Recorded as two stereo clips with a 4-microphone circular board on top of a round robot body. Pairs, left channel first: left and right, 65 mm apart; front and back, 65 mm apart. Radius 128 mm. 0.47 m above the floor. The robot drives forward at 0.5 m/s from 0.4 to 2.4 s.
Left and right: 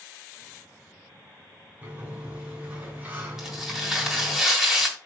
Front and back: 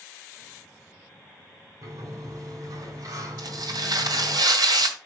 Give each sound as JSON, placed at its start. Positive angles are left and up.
{"t": 1.8, "sound": "a sliding door", "azimuth_deg": -150, "distance_m": 2.5}
{"t": 3.4, "sound": "tearing paper", "azimuth_deg": -170, "distance_m": 1.7}